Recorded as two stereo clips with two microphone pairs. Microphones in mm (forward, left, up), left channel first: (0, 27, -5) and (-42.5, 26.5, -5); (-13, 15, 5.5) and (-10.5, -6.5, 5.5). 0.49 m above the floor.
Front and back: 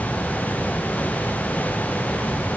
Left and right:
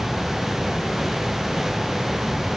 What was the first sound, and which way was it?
Only background noise.